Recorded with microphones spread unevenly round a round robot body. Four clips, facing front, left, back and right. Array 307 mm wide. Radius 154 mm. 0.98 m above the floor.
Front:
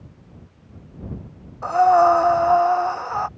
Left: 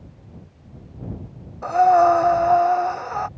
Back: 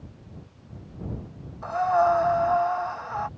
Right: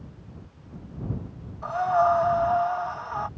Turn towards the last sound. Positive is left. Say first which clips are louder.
# left 8 dB, front 7 dB
turn(degrees=55)